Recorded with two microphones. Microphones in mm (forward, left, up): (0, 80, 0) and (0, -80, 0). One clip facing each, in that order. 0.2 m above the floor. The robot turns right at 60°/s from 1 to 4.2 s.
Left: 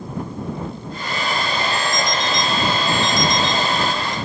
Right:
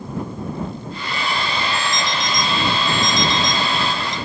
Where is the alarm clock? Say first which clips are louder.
Left 2 dB; 50° left (ahead or behind); by 4.2 s 80° right.